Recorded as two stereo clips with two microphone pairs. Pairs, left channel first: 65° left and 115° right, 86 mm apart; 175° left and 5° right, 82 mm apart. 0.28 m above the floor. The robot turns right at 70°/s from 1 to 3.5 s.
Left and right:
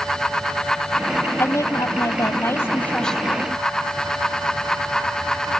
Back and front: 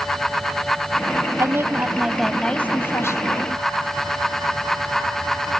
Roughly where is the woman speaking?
Ahead left.